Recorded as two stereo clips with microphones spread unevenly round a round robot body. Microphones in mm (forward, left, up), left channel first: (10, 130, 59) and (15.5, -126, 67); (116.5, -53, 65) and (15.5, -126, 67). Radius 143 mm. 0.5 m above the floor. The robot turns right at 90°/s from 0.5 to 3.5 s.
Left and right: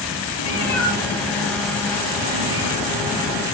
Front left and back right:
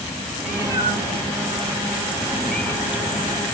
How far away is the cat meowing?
About 2.5 m.